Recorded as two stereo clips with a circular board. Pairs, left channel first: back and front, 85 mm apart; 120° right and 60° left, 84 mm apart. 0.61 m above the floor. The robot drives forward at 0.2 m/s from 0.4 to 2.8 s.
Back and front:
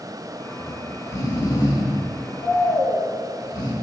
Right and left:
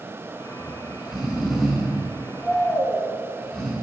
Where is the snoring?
140° left, 0.8 m; by 3.7 s 155° left, 1.1 m.